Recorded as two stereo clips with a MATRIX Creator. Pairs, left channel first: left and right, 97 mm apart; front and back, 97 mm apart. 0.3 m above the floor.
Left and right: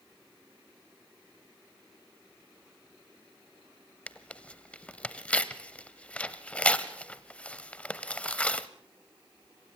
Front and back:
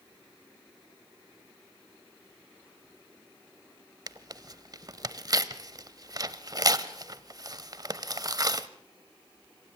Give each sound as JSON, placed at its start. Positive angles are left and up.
{"t": 4.1, "sound": "tearing paper", "azimuth_deg": 160, "distance_m": 0.7}